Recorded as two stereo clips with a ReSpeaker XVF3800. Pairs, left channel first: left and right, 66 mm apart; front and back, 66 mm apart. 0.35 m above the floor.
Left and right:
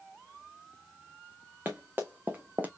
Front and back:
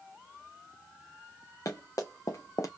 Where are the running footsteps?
30° right, 1.7 m; by 2.7 s 25° right, 0.8 m.